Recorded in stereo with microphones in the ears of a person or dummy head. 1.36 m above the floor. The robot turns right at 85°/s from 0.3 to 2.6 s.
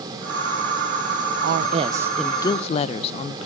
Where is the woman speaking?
65° right, 0.6 m; by 3.5 s 35° left, 0.6 m.